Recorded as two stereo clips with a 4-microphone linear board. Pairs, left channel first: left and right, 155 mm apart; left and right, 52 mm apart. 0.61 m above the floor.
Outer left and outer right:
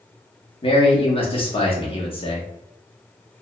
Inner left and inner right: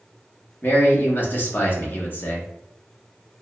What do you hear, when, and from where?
0.6 s a man speaking: 35° left (ahead or behind), 0.8 m